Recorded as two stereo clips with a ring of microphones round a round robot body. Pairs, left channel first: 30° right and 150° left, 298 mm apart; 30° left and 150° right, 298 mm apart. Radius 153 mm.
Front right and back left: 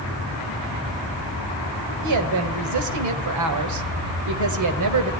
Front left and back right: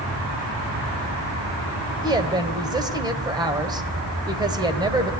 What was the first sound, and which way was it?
A woman speaking, 135° left.